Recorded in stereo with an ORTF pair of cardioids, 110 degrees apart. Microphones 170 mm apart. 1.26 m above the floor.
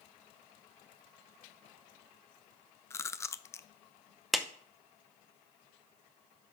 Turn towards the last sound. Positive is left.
turn(degrees=0)